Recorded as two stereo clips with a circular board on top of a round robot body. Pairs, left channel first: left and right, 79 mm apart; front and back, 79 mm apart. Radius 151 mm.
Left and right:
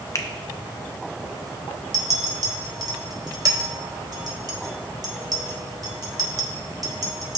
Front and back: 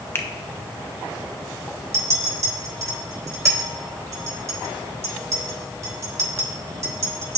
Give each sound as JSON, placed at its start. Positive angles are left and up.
{"t": 0.1, "sound": "a finger snap", "azimuth_deg": 55, "distance_m": 0.8}
{"t": 1.9, "sound": "a clink", "azimuth_deg": -125, "distance_m": 1.3}